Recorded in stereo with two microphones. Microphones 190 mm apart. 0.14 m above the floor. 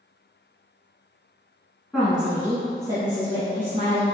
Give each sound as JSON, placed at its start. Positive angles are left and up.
{"t": 1.9, "sound": "a woman speaking", "side_deg": 0, "distance_m": 1.1}